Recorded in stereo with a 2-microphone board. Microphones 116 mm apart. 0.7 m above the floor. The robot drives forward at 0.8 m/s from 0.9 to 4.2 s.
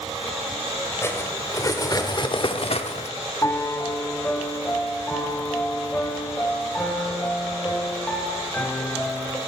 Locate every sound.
1.0 s cutlery clinking: 25° left (ahead or behind), 2.0 m; by 3.1 s 70° left (ahead or behind), 0.8 m
3.4 s a piano: 25° left (ahead or behind), 0.7 m; by 9.4 s 15° left (ahead or behind), 1.3 m